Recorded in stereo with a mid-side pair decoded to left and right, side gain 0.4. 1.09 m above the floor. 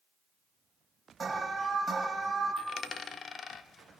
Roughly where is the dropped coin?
Ahead left.